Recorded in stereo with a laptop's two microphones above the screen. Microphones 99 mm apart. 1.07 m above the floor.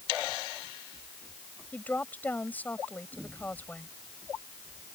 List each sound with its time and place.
1.7 s a woman speaking: 15° left (ahead or behind)